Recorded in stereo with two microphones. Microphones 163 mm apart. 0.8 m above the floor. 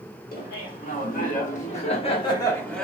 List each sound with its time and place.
0.3 s laughter: 65° left (ahead or behind), 1.5 m; by 2.9 s 5° left (ahead or behind), 0.7 m